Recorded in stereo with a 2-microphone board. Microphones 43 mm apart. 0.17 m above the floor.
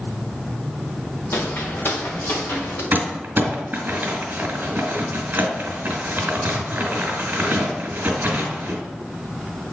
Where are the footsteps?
55° left (ahead or behind), 2 m; by 2.8 s 60° left (ahead or behind), 3 m.